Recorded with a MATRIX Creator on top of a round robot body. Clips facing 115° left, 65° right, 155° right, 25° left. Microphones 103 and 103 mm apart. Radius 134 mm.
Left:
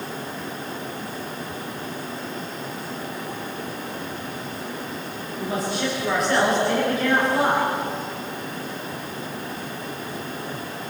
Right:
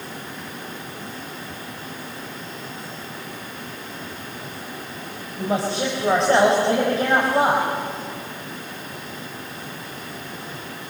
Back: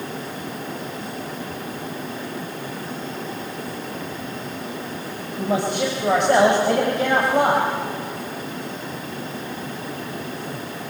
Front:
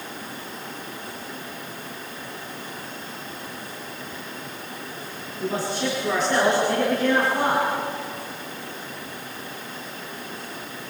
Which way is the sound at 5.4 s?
130° right.